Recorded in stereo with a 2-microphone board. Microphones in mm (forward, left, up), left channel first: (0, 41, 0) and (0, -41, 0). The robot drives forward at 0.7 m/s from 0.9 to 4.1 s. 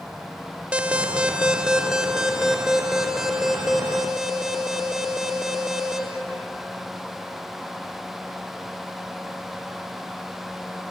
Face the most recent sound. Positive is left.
turn(degrees=-5)  # may be behind; listen again after turning